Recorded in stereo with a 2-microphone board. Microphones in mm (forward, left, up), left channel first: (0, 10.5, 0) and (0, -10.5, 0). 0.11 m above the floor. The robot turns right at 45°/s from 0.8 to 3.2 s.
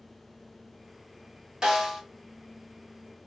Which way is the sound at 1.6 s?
40° right (ahead or behind).